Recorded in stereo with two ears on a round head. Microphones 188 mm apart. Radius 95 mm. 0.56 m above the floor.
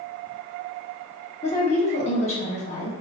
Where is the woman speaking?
35° left (ahead or behind), 1.3 m.